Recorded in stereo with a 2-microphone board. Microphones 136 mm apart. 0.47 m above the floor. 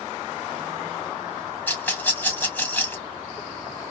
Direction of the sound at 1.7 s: 15° left (ahead or behind).